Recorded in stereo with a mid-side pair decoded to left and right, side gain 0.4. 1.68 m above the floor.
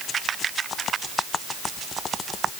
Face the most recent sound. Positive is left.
No sound to turn to.